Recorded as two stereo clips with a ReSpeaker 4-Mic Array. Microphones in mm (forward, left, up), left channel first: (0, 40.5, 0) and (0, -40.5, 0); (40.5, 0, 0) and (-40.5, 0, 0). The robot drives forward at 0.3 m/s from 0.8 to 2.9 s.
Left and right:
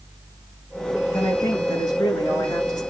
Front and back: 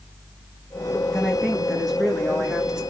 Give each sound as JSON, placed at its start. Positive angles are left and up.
{"t": 1.1, "sound": "a woman speaking", "azimuth_deg": 85, "distance_m": 2.5}